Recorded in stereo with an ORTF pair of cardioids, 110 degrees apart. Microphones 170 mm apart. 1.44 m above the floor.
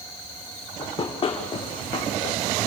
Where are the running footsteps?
30° left, 5.5 m; by 2.4 s 40° left, 3.5 m.